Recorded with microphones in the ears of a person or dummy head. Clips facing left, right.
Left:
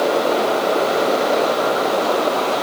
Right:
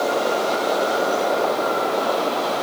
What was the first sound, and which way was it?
Only background noise.